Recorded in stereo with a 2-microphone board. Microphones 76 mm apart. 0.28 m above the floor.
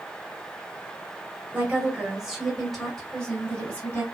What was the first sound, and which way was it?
A woman speaking, 20° right (ahead or behind).